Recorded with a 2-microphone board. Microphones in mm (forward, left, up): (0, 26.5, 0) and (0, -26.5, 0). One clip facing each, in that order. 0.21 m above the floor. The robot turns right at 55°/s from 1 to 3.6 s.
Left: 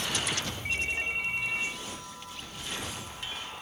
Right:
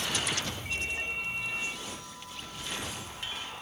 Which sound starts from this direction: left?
A ringtone, at 0.7 s.